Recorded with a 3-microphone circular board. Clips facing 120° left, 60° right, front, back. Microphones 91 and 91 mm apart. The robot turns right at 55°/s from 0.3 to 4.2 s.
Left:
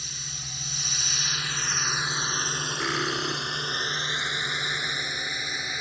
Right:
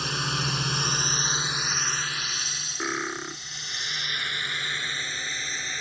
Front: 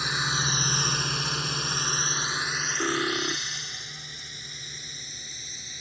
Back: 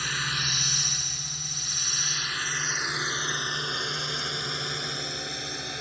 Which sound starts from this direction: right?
A drone, at 0.0 s.